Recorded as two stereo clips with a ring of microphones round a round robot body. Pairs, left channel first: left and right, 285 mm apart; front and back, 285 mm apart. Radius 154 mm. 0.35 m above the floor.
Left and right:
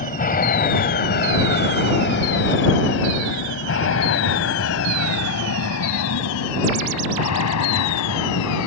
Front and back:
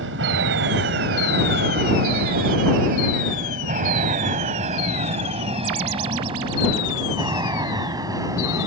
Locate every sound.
0.0 s an aircraft: 140° left; by 8.7 s 100° left